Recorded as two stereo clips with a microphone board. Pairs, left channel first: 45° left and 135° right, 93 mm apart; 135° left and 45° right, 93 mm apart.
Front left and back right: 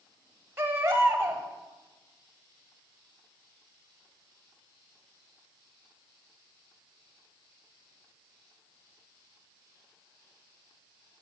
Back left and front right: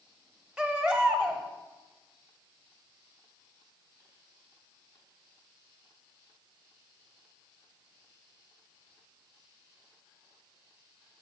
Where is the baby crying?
105° right, 1.0 m.